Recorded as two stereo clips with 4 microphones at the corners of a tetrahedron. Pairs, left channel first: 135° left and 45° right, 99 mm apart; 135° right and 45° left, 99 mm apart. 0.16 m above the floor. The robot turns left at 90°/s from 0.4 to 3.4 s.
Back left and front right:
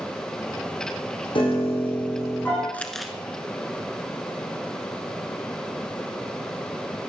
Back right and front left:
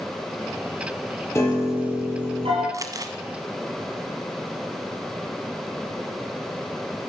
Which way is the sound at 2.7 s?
70° left.